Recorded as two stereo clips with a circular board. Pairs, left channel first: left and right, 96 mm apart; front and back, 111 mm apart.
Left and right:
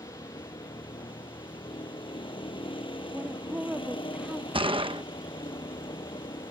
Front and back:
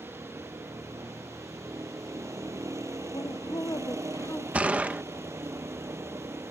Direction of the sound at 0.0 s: 115° left.